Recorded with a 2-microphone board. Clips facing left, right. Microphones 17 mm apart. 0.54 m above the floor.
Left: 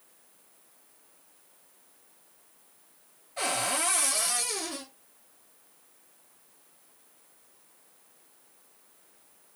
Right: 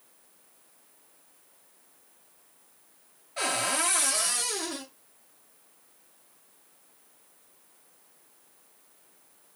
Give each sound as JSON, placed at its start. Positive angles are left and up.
{"t": 3.4, "sound": "a cupboard door", "side_deg": -25, "distance_m": 1.7}